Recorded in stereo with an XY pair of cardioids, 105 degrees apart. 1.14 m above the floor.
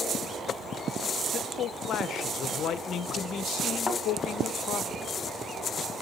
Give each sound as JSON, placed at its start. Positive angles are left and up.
{"t": 1.3, "sound": "a man speaking", "azimuth_deg": 70, "distance_m": 0.7}
{"t": 3.9, "sound": "a thud", "azimuth_deg": 20, "distance_m": 3.0}